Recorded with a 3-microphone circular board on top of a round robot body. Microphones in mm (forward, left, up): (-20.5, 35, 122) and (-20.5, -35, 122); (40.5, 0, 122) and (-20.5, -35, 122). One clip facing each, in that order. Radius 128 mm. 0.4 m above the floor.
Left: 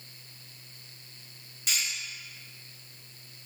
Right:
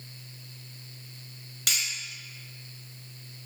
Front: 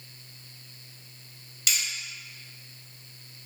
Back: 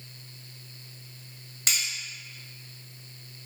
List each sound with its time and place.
1.7 s cutlery clinking: 100° right, 1.2 m